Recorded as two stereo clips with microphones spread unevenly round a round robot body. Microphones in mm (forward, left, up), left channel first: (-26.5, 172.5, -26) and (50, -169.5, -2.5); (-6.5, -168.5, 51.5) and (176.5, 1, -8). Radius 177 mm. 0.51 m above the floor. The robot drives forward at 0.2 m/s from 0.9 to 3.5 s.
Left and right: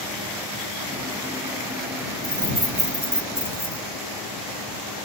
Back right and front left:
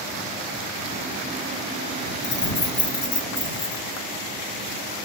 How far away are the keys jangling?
About 1.3 m.